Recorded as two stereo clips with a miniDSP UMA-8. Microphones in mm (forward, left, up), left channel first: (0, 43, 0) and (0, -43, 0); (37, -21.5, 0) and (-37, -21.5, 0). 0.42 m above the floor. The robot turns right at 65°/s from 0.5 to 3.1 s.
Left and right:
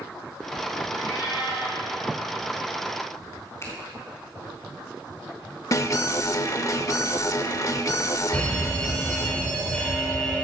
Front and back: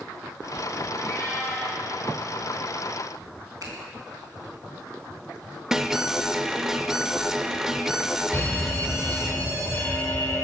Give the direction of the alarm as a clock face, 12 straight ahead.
9 o'clock.